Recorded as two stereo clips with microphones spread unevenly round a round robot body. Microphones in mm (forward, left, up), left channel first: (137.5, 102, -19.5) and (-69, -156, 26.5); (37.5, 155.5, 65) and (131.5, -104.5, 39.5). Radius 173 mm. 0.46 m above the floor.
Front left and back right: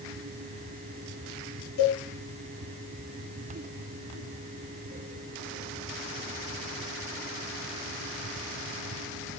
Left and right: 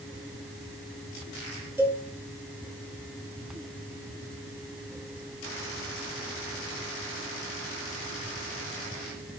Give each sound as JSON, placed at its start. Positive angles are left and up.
{"t": 1.8, "sound": "a cowbell", "azimuth_deg": 10, "distance_m": 5.5}